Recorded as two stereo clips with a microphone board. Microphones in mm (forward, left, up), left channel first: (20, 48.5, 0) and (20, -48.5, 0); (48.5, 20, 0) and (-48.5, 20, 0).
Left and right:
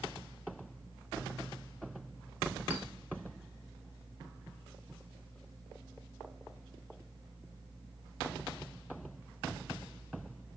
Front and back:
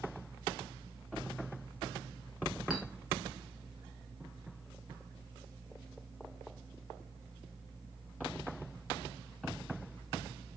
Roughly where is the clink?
Right.